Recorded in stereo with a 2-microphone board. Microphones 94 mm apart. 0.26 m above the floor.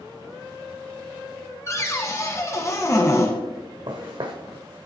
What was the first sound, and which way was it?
A cupboard door, 30° left (ahead or behind).